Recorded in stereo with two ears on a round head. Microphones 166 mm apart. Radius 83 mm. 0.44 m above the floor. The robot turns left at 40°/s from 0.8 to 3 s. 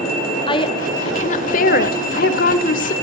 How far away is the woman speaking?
About 1.2 m.